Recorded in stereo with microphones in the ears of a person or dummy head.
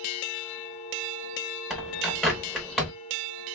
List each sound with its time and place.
1.7 s a bird: 5° right (ahead or behind), 0.7 m